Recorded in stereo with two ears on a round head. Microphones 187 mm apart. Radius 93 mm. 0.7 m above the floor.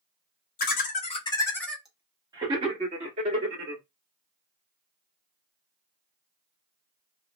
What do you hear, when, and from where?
0.6 s laughter: 45° left (ahead or behind), 0.9 m; by 3.8 s 45° right (ahead or behind), 1.6 m